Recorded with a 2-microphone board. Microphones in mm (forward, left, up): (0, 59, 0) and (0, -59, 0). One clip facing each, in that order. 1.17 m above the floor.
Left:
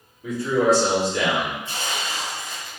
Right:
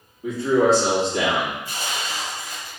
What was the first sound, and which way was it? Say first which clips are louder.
A man speaking: right 2 dB; 35° right (ahead or behind).